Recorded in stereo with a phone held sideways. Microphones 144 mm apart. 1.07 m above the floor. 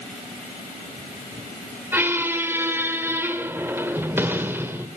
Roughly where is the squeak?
Centre.